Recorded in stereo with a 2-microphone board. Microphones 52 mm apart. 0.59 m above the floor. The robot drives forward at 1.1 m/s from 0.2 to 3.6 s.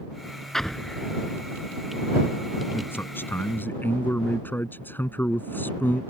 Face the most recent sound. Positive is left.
turn(degrees=40)  # may be behind; listen again after turning